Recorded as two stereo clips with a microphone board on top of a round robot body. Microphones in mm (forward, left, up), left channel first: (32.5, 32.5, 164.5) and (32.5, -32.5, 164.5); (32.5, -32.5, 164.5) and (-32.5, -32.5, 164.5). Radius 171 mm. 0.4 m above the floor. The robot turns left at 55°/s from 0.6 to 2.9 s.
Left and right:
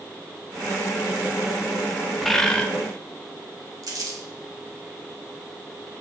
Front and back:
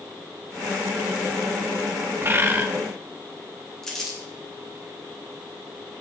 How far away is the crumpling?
About 2.5 m.